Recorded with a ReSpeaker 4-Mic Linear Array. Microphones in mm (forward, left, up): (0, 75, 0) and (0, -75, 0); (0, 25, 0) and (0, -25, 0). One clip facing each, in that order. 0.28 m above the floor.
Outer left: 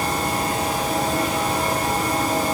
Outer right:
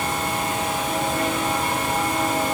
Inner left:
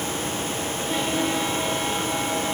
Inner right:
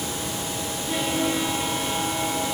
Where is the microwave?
No microwave in this recording.